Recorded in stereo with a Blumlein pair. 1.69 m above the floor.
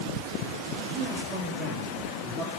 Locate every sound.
0.9 s a man speaking: 25° right, 5.5 m; by 2.5 s 15° right, 6.5 m